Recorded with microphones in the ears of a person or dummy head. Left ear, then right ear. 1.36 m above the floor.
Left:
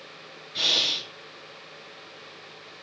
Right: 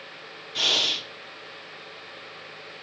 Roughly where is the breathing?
Right.